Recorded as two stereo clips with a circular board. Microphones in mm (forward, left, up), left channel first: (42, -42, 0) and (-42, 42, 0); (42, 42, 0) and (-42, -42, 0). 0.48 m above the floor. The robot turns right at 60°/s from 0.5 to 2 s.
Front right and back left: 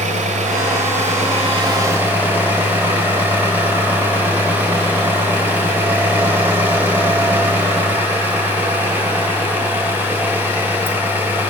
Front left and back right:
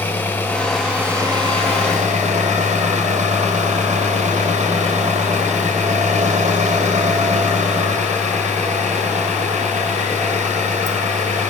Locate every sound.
0.0 s an engine running: 120° left, 2.5 m; by 11.5 s 150° right, 2.5 m